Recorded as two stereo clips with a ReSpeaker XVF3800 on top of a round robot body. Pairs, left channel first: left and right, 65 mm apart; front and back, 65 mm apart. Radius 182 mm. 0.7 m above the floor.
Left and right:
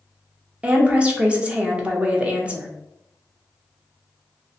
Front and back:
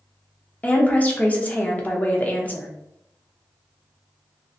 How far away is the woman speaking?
About 1.0 m.